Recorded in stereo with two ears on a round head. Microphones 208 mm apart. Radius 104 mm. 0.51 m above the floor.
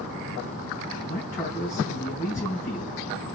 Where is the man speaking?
10° left (ahead or behind), 4 m.